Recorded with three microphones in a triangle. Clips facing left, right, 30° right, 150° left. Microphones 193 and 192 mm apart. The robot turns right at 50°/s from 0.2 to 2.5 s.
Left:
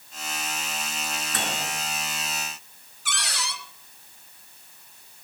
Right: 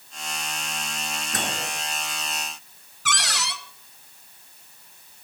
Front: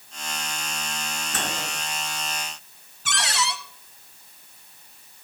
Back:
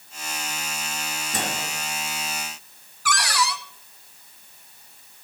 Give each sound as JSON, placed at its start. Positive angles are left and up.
{"t": 1.3, "sound": "a microwave", "azimuth_deg": -135, "distance_m": 3.5}
{"t": 3.0, "sound": "a cupboard door", "azimuth_deg": -95, "distance_m": 1.2}